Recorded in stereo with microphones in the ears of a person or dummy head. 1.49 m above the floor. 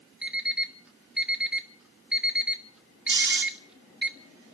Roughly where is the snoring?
Right.